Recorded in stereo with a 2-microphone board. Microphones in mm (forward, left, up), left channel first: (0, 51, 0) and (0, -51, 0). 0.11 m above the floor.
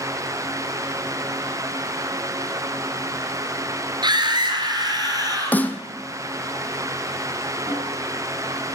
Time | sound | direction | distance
4.0 | a scream | 45° right (ahead or behind) | 1.6 m
5.5 | a snare drum | 15° left (ahead or behind) | 0.7 m
7.7 | a snare drum | 50° right (ahead or behind) | 6.5 m